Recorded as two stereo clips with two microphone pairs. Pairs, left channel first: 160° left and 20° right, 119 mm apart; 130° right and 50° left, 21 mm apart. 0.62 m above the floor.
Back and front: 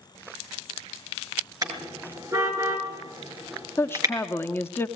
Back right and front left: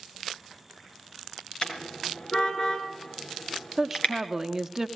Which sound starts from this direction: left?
A woman speaking, at 3.8 s.